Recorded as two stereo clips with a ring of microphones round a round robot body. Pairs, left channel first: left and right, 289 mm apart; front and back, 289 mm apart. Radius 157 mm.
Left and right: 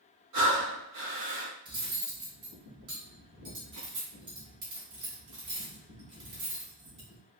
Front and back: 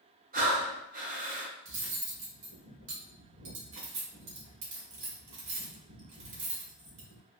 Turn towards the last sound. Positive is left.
turn(degrees=-135)